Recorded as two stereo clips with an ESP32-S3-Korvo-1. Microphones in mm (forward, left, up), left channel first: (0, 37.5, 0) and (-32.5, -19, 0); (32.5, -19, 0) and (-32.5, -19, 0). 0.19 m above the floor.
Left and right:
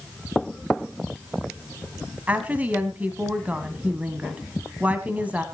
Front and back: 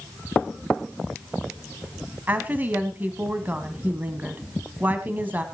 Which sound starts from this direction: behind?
A woman speaking, at 2.3 s.